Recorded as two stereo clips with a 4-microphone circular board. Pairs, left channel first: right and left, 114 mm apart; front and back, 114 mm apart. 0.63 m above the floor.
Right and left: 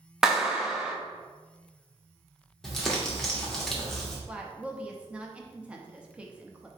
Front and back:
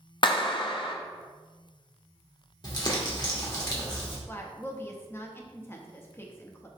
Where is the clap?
10° left, 0.6 m.